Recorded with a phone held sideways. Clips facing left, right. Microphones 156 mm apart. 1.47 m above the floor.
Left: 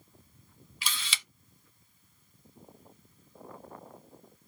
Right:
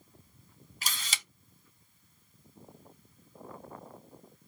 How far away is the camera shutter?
About 0.8 m.